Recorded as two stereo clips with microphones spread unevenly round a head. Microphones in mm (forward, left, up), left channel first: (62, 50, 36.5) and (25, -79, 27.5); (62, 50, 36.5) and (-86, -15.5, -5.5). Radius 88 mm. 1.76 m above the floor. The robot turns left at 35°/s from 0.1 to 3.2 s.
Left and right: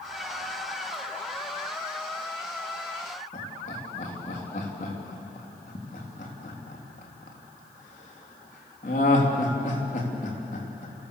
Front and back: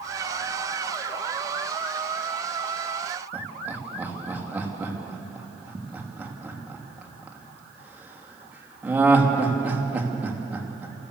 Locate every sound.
3.3 s laughter: 120° left, 3.5 m